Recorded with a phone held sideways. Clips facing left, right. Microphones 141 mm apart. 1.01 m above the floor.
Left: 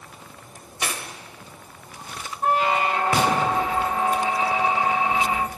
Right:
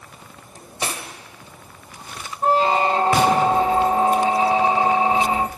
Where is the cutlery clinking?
35° right (ahead or behind), 2.5 m.